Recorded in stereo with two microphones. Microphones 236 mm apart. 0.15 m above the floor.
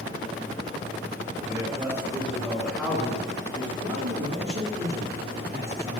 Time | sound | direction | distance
1.4 | a man speaking | 20° right (ahead or behind) | 2.5 m
3.8 | a man speaking | 45° right (ahead or behind) | 3 m